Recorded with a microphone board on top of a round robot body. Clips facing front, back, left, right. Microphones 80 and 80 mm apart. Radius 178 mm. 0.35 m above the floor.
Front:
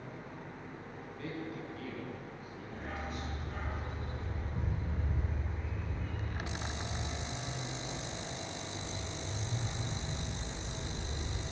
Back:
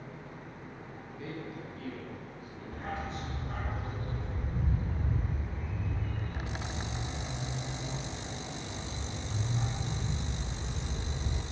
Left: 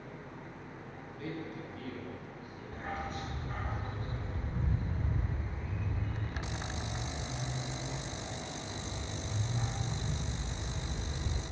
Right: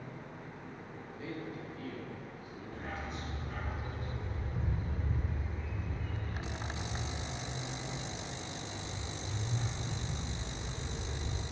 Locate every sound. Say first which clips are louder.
1.2 s a man speaking: even, left 1 dB; 105° left, 6 m; by 3.7 s 130° left, 4.5 m
2.7 s a dog barking: back 4 dB, left 3 dB; 145° left, 1.6 m